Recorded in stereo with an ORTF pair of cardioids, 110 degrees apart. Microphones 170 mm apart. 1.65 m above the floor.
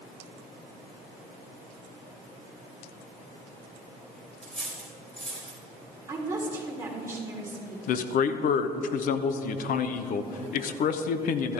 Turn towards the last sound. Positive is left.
turn(degrees=60)